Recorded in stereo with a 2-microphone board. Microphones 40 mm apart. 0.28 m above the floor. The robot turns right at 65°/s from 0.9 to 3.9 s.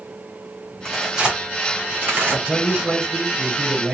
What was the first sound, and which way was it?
Tearing paper, 5° left (ahead or behind).